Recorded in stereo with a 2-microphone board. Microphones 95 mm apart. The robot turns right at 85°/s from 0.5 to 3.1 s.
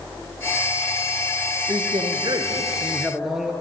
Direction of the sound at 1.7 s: 125° right.